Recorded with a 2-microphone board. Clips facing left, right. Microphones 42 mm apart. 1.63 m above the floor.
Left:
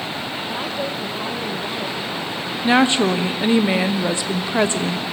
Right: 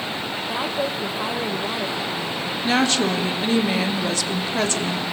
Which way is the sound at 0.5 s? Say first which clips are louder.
Right 2 dB; 10° right (ahead or behind).